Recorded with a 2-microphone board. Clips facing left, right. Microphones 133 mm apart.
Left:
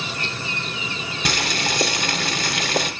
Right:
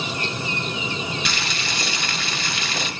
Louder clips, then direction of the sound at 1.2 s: Left 4 dB; 45° left (ahead or behind).